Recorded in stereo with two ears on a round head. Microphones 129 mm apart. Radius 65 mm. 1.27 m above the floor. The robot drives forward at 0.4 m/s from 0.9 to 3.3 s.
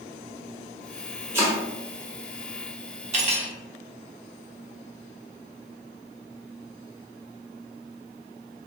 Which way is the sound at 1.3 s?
20° right (ahead or behind).